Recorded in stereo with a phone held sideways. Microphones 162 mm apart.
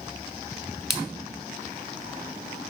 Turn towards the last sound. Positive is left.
turn(degrees=0)  # may be behind; listen again after turning